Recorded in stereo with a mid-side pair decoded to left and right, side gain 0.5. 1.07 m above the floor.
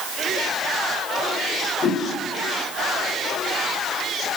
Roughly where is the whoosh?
Ahead left.